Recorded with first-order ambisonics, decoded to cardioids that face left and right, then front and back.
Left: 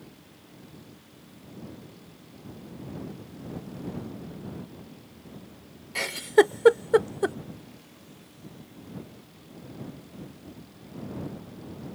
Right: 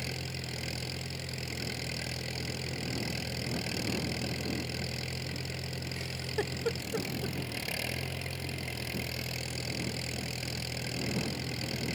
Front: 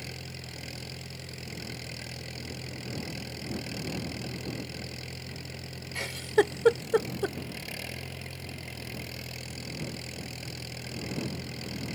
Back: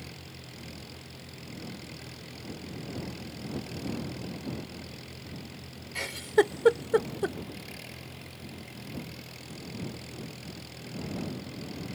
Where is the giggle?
90° left.